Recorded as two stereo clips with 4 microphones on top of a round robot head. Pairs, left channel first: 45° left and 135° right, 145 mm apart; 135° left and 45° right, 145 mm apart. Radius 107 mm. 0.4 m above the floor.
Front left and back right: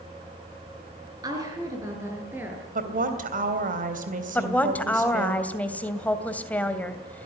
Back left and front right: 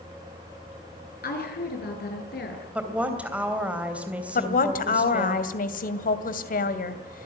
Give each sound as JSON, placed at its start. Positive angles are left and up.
{"t": 1.2, "sound": "a woman speaking", "azimuth_deg": 160, "distance_m": 7.0}
{"t": 2.8, "sound": "a woman speaking", "azimuth_deg": -125, "distance_m": 3.0}
{"t": 4.3, "sound": "a woman speaking", "azimuth_deg": 125, "distance_m": 2.5}